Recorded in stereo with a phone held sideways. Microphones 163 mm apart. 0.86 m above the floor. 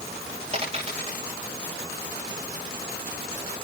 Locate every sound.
0.5 s a dropped coin: 35° right (ahead or behind), 10 m